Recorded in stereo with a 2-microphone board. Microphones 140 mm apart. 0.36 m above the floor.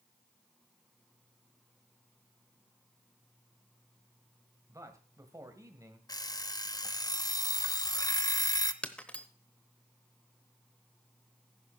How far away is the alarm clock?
About 0.5 m.